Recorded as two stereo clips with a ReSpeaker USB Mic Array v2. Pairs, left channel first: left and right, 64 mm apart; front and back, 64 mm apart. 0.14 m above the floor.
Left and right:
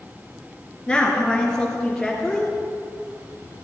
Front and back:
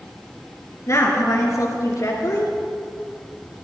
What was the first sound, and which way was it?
A woman speaking, 15° left.